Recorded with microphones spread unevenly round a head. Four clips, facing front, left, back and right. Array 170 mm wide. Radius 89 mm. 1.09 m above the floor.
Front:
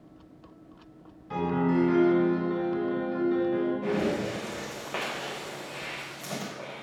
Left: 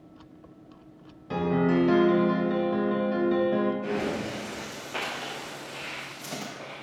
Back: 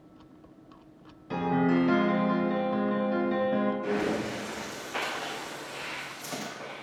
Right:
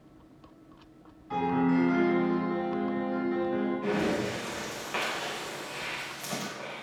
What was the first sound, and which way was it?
A piano, 100° left.